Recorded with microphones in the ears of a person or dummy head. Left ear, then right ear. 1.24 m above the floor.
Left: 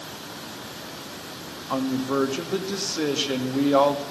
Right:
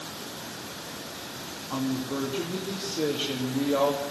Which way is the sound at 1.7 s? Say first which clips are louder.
Left 6 dB; 65° left (ahead or behind).